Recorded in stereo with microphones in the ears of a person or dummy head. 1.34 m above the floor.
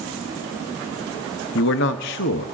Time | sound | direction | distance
1.6 | a man speaking | 50° left (ahead or behind) | 0.5 m